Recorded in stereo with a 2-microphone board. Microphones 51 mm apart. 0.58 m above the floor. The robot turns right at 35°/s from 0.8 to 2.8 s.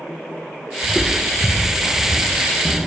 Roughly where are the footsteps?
Centre.